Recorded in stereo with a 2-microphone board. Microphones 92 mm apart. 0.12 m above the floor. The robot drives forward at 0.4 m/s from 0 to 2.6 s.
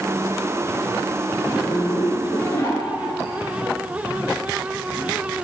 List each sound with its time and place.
1.4 s a zipper: 25° left (ahead or behind), 2 m